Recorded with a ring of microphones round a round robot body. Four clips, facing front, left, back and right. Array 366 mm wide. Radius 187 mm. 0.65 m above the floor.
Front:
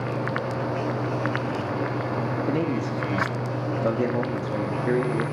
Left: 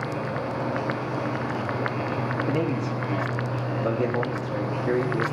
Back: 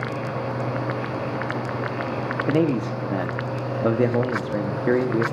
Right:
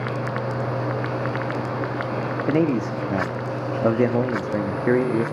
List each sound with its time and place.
2.5 s a man speaking: 120° right, 1.0 m